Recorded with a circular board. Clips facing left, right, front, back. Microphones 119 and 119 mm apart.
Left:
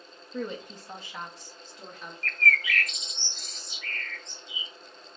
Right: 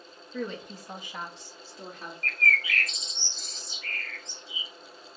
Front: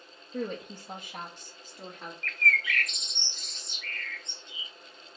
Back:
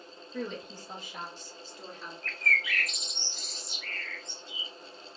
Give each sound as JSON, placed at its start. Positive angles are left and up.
{"t": 0.3, "sound": "a woman speaking", "azimuth_deg": 25, "distance_m": 0.6}
{"t": 2.2, "sound": "a bird", "azimuth_deg": -95, "distance_m": 0.8}